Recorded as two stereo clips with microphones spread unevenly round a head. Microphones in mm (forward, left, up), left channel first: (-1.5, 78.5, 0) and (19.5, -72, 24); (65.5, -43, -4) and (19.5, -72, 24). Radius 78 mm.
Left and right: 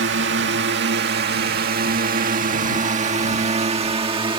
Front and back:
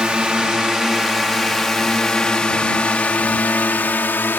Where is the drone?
75° right; by 4.4 s 25° right.